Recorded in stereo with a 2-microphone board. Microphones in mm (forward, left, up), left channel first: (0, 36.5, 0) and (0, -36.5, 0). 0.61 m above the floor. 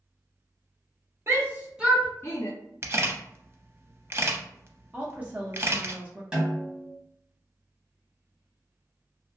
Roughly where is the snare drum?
Centre.